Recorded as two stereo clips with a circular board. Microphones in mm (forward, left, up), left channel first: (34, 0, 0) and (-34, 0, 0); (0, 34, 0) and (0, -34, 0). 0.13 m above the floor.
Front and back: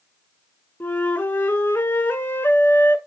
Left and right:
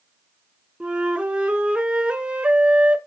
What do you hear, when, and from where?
0.8 s a flute: 35° right, 1.2 m